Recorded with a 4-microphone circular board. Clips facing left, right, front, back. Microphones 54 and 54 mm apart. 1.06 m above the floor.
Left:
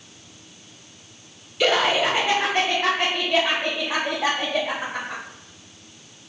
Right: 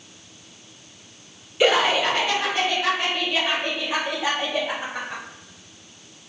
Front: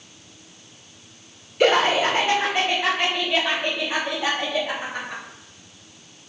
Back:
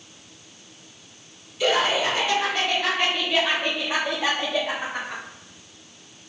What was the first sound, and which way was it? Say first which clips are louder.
Laughter: right 1 dB, front 4 dB; 20° right.